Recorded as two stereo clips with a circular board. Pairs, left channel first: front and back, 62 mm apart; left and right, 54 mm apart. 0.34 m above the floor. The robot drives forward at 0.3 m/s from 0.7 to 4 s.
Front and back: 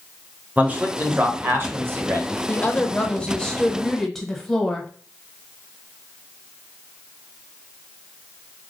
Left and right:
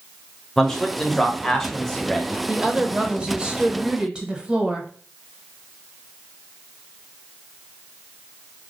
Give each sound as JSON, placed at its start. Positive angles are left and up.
{"t": 0.6, "sound": "a man speaking", "azimuth_deg": 165, "distance_m": 1.0}
{"t": 2.5, "sound": "a woman speaking", "azimuth_deg": -35, "distance_m": 1.1}